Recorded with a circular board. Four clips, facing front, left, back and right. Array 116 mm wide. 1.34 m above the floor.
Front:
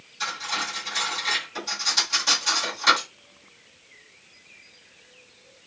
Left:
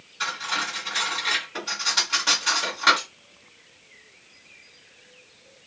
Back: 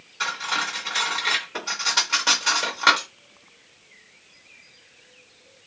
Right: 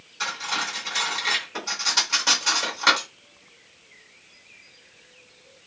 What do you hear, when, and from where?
0.2 s cutlery clinking: 165° right, 1.2 m